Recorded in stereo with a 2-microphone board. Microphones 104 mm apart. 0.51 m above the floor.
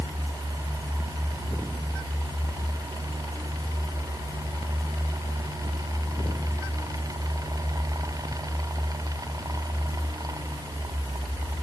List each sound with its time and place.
Only background noise.